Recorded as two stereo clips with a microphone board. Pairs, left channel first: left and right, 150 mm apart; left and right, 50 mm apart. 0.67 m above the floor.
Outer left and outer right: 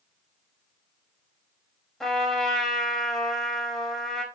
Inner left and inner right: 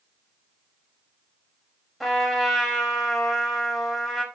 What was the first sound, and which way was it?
A trumpet, 5° left (ahead or behind).